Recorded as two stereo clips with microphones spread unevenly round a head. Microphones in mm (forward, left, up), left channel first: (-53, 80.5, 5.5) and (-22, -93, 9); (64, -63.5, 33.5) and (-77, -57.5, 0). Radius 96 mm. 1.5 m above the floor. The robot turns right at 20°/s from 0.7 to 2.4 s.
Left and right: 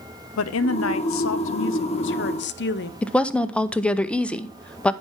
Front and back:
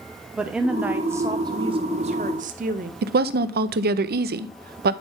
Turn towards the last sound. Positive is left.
turn(degrees=-175)